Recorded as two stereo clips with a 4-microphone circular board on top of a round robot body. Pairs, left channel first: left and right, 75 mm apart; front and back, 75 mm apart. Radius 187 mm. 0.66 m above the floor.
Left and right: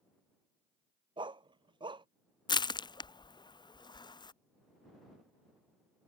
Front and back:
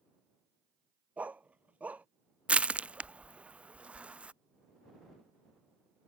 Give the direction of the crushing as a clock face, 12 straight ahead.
8 o'clock.